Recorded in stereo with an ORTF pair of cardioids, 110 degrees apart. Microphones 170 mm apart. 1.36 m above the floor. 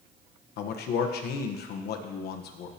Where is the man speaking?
70° left, 1.2 m.